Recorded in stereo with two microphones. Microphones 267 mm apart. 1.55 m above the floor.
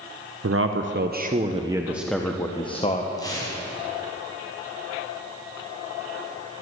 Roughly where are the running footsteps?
I don't hear running footsteps.